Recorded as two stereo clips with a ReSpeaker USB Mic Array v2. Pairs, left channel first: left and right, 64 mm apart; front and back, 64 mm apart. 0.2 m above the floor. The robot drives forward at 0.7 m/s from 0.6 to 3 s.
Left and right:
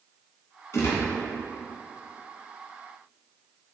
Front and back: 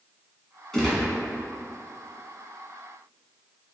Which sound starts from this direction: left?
A gunshot, at 0.7 s.